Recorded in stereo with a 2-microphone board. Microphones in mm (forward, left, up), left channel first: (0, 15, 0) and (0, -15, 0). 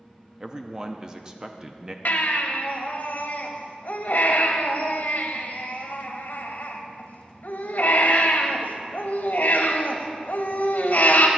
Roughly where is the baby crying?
Left.